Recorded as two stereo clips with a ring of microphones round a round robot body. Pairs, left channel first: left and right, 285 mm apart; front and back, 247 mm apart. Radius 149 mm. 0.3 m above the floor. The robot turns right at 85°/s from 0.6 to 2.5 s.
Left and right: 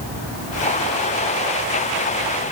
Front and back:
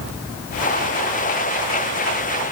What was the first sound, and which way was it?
Only background noise.